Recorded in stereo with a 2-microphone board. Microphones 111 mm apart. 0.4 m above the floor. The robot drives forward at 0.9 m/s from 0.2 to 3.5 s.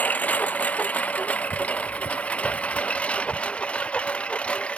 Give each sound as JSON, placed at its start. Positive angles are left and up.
{"t": 0.0, "sound": "a lawn mower", "side_deg": 15}